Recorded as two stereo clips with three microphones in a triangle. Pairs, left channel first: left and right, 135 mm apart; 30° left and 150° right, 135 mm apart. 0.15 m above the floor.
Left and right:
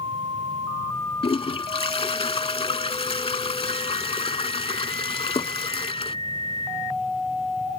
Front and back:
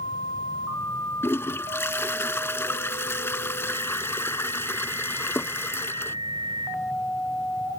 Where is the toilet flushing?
95° left.